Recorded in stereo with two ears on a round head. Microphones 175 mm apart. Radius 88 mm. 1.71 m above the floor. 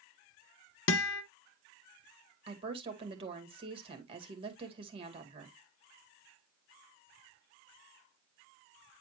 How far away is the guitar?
About 0.7 m.